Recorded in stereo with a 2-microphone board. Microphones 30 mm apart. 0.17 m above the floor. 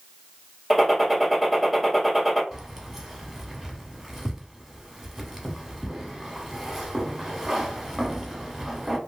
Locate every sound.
0.7 s a gunshot: centre (ahead or behind), 2.0 m
2.5 s keys jangling: 5° right (ahead or behind), 0.9 m